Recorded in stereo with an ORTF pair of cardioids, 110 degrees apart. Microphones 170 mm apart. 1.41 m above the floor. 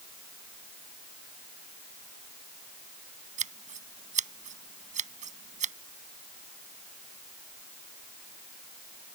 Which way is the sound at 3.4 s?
45° right.